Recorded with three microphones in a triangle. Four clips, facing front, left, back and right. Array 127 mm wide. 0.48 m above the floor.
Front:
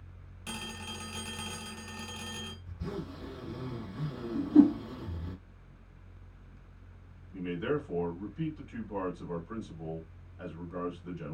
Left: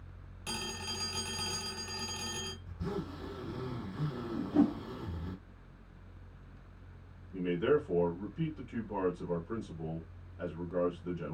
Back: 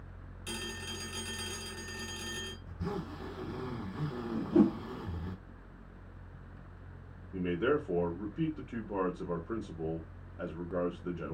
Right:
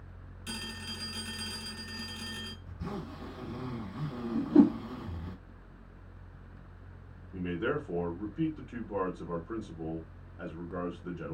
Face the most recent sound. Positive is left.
turn(degrees=-165)